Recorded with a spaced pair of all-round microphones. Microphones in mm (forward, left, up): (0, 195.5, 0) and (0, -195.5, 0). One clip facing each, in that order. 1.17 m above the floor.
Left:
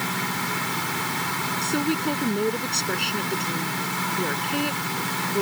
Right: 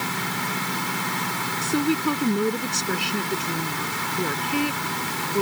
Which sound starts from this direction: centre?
A woman speaking, at 1.6 s.